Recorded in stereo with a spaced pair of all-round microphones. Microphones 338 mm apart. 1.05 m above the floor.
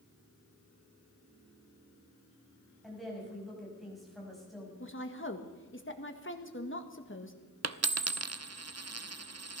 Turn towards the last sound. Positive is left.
turn(degrees=-50)  # may be behind; listen again after turning